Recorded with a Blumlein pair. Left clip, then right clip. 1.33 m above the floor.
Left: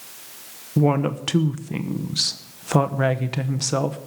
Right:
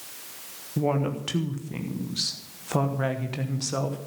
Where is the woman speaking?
20° left, 1.0 m.